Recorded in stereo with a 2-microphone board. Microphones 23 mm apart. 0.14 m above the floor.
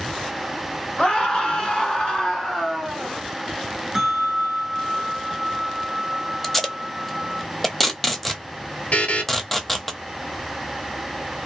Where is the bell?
20° right (ahead or behind), 1.1 m.